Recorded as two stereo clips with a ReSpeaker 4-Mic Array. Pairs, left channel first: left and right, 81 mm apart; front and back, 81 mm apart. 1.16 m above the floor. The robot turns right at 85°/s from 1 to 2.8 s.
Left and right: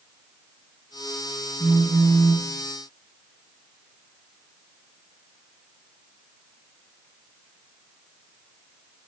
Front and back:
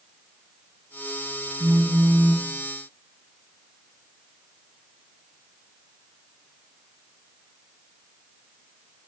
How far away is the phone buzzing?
About 3 m.